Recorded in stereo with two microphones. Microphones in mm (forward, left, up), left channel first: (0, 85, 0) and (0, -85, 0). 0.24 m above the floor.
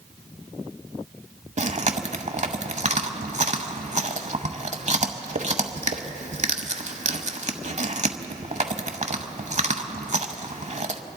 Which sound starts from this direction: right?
Chewing, at 1.6 s.